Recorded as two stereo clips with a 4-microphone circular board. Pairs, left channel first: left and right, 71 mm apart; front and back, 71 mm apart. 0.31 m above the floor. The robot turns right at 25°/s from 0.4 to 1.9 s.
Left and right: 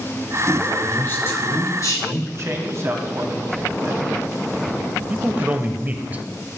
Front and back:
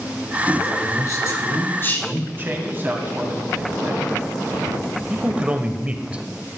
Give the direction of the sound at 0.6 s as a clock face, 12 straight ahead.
11 o'clock.